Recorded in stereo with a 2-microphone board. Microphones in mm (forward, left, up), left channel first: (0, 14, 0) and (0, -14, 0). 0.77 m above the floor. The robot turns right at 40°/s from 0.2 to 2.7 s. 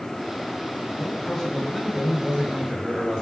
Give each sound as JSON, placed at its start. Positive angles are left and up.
{"t": 1.0, "sound": "a man speaking", "azimuth_deg": 150, "distance_m": 5.5}